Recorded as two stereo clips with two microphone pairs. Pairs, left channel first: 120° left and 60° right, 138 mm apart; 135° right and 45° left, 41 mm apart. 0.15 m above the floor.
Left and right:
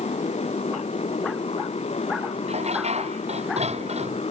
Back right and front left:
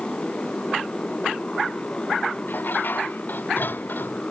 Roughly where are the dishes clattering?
Right.